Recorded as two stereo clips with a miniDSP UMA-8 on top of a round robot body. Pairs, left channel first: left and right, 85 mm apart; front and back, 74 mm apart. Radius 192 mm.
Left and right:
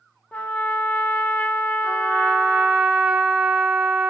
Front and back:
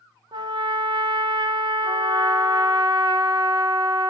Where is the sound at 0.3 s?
165° left, 0.5 m.